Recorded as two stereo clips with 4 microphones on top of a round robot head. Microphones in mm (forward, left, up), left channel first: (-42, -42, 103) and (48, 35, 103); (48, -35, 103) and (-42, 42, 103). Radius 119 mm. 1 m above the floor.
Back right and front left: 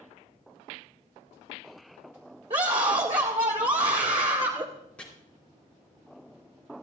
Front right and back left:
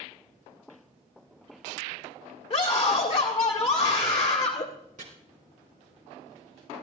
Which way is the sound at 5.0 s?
140° left.